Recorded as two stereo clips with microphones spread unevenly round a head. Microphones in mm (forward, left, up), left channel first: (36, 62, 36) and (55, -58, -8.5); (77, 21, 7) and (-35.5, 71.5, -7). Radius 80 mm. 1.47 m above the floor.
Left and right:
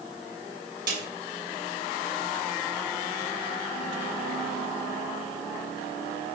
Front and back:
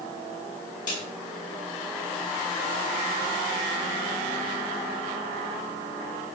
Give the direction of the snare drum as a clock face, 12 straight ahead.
3 o'clock.